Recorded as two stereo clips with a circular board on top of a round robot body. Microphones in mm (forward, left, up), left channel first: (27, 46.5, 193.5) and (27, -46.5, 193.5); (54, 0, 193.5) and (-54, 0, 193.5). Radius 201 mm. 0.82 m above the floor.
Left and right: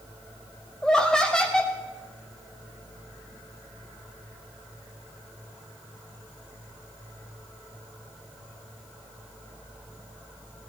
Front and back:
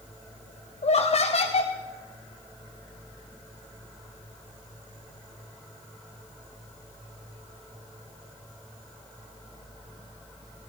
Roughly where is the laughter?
Ahead.